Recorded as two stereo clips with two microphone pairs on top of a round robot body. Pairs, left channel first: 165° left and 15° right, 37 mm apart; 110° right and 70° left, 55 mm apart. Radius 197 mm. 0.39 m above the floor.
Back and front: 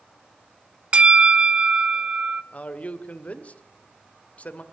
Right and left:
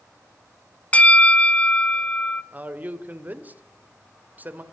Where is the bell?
55° right, 1.1 m.